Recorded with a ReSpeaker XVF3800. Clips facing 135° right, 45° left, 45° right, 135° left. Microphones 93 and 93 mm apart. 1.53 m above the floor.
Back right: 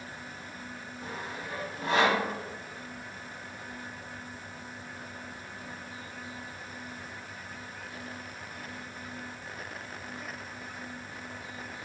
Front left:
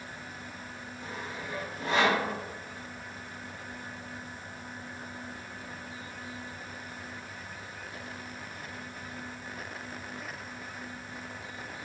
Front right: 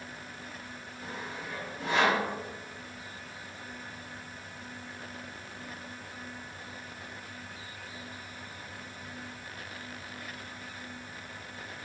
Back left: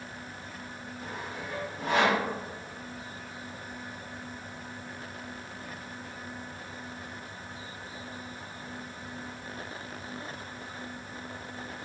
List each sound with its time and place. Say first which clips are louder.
1.0 s sawing: even, back left 1 dB; straight behind, 1.1 m